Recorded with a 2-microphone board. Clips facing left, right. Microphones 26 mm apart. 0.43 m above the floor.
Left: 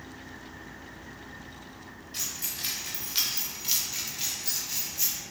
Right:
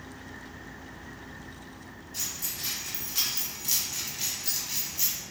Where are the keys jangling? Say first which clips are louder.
Left 1 dB; 60° left (ahead or behind), 1.1 m; by 5.1 s 15° right (ahead or behind), 1.1 m.